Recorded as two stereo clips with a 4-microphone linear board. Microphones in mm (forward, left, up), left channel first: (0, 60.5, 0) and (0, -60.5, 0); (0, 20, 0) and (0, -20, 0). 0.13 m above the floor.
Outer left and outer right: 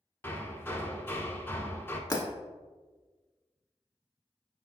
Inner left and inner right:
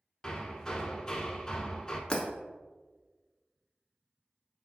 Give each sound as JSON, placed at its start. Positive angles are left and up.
{"t": 0.2, "sound": "hammering", "side_deg": 20, "distance_m": 0.5}
{"t": 2.1, "sound": "breaking glass", "side_deg": 30, "distance_m": 0.7}